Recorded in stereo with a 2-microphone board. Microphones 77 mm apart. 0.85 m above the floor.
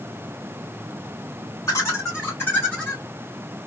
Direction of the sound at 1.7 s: 40° left (ahead or behind).